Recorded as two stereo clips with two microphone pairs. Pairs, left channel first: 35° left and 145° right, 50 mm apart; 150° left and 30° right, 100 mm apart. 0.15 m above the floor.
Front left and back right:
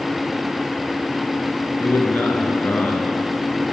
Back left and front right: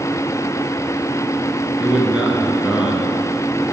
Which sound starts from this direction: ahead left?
A man speaking, at 1.8 s.